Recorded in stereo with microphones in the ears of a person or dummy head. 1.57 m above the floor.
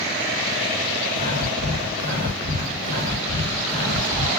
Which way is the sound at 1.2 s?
35° right (ahead or behind).